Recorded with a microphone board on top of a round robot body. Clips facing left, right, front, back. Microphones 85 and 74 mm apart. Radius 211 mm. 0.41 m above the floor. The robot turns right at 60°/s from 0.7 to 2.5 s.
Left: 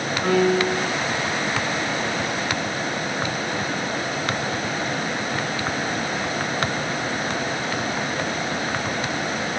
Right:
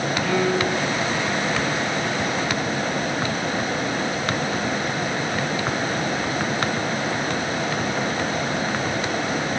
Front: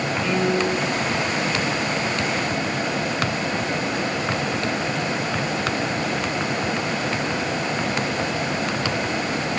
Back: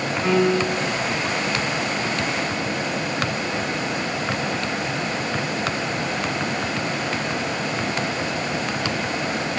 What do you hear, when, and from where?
0.2 s a piano: 145° left, 1.5 m; by 0.8 s 155° left, 1.5 m